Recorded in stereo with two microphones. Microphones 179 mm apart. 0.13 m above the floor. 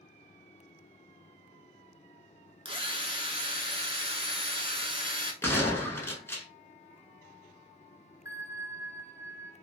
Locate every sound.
2.6 s a drill: 30° right (ahead or behind), 0.9 m
5.4 s a gunshot: 15° left (ahead or behind), 0.8 m
8.2 s a bell: 15° right (ahead or behind), 0.8 m